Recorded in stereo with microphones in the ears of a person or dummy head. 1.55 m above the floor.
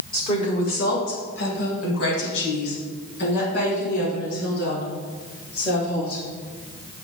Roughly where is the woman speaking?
Centre.